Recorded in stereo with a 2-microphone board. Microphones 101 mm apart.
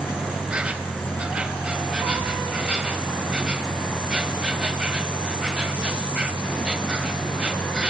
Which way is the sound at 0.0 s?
10° right (ahead or behind).